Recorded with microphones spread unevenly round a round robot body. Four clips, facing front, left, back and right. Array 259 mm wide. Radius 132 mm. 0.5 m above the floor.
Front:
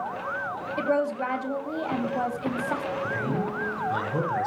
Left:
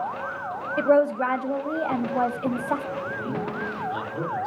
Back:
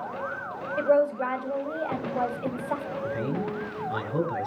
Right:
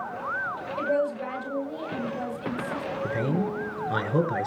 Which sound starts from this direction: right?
A man speaking, at 3.0 s.